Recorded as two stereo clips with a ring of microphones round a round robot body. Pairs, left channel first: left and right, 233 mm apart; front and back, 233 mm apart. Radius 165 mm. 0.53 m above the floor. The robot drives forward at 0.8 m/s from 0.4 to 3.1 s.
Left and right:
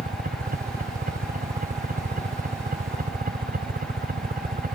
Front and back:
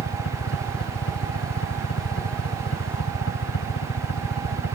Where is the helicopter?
40° right.